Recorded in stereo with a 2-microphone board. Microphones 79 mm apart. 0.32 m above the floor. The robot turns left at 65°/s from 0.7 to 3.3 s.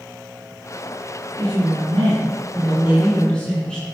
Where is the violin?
No violin in this recording.